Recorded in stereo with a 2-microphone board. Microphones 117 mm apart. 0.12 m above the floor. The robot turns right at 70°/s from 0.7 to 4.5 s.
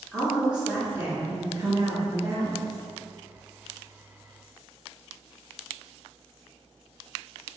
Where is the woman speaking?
165° right, 1.7 m; by 2.7 s 25° right, 1.7 m.